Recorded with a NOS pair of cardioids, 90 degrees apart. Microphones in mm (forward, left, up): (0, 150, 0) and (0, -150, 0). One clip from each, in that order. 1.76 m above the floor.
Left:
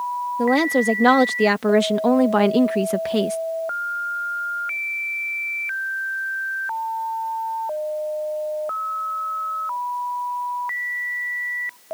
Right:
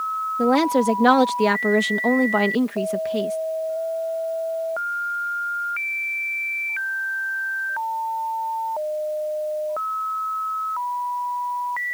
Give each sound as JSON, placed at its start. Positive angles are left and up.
{"t": 0.4, "sound": "a woman speaking", "azimuth_deg": 0}